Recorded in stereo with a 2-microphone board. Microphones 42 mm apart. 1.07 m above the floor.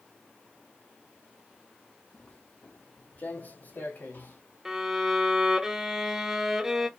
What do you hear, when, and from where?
2.1 s footsteps: 30° left (ahead or behind), 1.2 m; by 4.4 s 50° left (ahead or behind), 2.5 m
4.7 s a violin: 10° right (ahead or behind), 0.8 m